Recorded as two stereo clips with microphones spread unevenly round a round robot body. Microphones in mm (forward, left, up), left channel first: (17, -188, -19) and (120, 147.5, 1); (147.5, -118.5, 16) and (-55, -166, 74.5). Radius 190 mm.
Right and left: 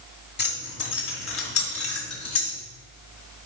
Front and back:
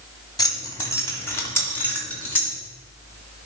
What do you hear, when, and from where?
0.4 s keys jangling: 50° right, 2 m; by 2.6 s 65° right, 3.5 m